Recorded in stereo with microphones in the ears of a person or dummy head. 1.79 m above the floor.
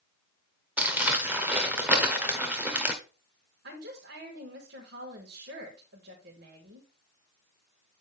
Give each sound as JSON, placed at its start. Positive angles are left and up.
{"t": 0.8, "sound": "crumpling", "side_deg": -10, "distance_m": 1.1}
{"t": 3.6, "sound": "a woman speaking", "side_deg": -70, "distance_m": 3.5}